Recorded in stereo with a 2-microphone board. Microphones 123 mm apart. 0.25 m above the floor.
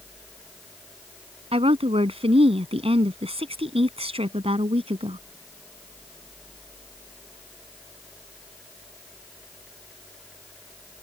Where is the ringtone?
No ringtone in this recording.